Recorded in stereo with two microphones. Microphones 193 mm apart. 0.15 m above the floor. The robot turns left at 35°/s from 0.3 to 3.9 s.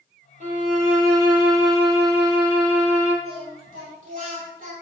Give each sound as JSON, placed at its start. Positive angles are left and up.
{"t": 0.4, "sound": "a violin", "azimuth_deg": -45, "distance_m": 1.1}
{"t": 3.2, "sound": "singing", "side_deg": -60, "distance_m": 1.4}